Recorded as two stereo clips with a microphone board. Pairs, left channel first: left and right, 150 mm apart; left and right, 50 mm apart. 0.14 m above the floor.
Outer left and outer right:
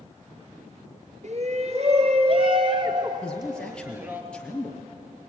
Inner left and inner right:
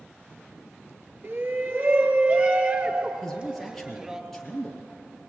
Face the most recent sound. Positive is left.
turn(degrees=5)  # may be behind; listen again after turning